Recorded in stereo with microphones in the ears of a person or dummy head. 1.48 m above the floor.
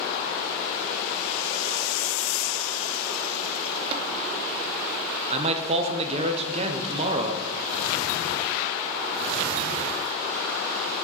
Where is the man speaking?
35° right (ahead or behind), 0.7 m.